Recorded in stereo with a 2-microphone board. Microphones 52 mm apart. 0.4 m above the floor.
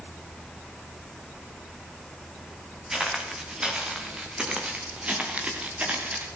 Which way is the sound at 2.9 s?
10° right (ahead or behind).